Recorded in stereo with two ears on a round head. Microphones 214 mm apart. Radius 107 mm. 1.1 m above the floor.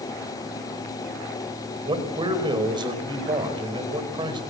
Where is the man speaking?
20° right (ahead or behind), 4.5 m.